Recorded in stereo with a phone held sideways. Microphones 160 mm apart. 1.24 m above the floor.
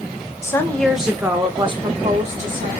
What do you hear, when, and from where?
0.4 s a woman speaking: 20° left (ahead or behind), 0.8 m; by 2.7 s 55° right (ahead or behind), 1.2 m